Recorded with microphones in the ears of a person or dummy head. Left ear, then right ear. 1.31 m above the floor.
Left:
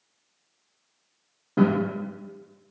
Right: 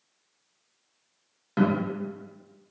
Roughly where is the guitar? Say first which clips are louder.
Left 3 dB; right.